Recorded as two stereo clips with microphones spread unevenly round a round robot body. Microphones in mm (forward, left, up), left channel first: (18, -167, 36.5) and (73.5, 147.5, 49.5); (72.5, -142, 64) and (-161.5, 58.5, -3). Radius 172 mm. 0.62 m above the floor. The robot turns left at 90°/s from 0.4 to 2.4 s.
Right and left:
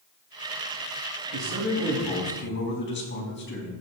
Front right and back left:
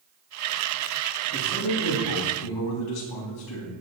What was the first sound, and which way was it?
A man speaking, 55° left.